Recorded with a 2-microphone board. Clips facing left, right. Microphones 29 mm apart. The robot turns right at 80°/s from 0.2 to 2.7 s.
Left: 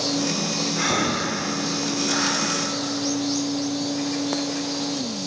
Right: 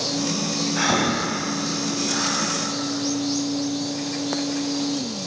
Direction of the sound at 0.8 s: 30° right (ahead or behind).